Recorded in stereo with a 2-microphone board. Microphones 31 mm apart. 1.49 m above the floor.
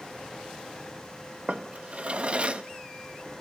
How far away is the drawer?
About 0.8 m.